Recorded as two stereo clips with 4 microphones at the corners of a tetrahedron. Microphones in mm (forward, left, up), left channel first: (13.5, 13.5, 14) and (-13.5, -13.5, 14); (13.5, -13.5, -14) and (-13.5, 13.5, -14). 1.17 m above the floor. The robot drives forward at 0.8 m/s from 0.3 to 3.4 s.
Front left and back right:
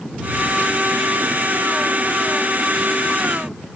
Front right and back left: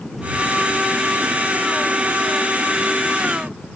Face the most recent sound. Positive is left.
No sound to turn to.